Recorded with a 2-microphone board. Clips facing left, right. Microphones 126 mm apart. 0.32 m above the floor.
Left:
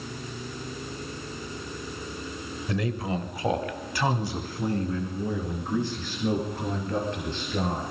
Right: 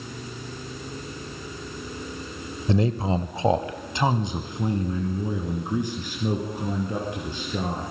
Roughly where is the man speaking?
Right.